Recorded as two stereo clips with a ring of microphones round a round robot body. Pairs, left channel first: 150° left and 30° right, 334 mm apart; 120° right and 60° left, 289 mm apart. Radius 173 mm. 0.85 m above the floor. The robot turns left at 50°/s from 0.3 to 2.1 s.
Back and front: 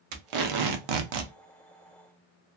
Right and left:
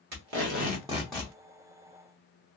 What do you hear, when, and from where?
0.1 s tape being pulled: 10° left, 0.6 m; by 1.3 s 40° right, 0.6 m